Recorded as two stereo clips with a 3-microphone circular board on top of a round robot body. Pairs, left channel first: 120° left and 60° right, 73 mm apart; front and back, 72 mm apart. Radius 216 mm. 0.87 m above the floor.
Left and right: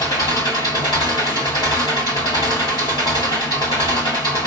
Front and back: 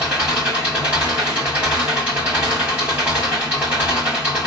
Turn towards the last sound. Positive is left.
turn(degrees=110)